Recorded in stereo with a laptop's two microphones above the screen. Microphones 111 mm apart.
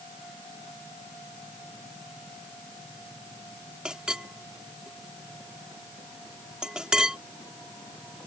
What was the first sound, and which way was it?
A clink, 5° right (ahead or behind).